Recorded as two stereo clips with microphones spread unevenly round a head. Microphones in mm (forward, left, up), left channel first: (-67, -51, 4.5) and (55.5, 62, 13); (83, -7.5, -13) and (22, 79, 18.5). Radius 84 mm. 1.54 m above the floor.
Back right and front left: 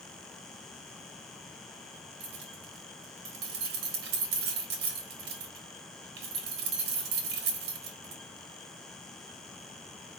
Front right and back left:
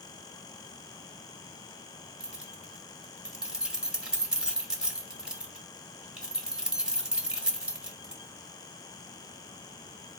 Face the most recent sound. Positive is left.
turn(degrees=55)